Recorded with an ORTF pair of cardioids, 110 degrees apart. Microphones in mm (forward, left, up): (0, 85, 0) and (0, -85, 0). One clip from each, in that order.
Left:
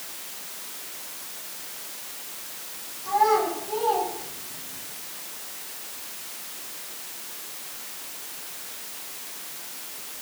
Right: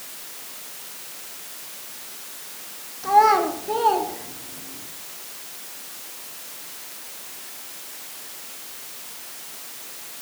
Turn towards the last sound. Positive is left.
turn(degrees=-75)